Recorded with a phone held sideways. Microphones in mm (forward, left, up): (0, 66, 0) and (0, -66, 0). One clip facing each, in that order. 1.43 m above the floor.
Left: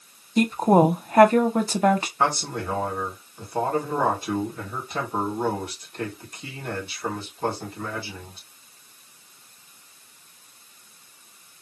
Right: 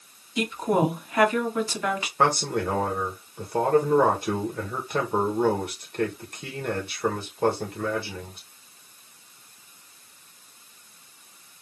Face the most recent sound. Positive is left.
turn(degrees=-60)  # may be behind; listen again after turning